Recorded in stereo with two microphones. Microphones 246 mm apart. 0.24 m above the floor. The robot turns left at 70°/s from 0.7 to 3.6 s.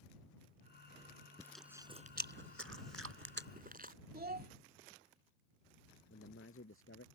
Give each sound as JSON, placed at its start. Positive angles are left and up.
{"t": 1.4, "sound": "chewing", "side_deg": 10}
{"t": 4.1, "sound": "a child speaking", "side_deg": -40}
{"t": 6.1, "sound": "a man speaking", "side_deg": 60}